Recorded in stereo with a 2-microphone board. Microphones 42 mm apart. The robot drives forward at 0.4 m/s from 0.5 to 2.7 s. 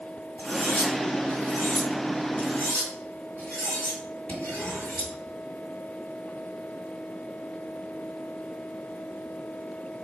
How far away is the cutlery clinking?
About 1.7 m.